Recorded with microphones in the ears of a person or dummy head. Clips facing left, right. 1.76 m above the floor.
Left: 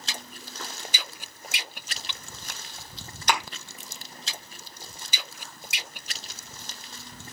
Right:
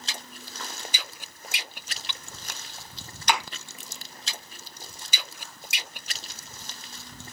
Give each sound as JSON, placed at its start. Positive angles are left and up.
{"t": 3.3, "sound": "a thud", "side_deg": 45, "distance_m": 2.0}